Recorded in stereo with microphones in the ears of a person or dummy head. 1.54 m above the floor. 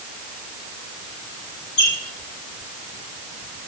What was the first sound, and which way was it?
A squeak, 65° left (ahead or behind).